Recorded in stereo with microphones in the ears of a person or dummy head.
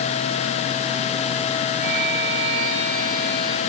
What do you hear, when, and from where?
1.8 s a violin: 50° right (ahead or behind), 8.5 m